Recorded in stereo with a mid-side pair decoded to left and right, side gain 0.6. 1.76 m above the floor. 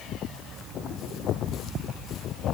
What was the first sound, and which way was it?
Only background noise.